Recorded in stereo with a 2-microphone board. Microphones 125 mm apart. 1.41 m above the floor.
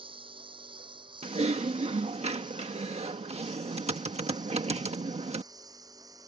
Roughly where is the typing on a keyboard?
Right.